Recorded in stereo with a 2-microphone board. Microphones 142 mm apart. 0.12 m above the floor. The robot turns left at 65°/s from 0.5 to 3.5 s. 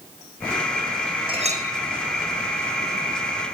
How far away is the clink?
About 3 m.